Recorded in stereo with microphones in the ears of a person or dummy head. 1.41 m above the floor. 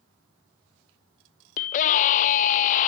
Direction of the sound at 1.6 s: 50° left (ahead or behind).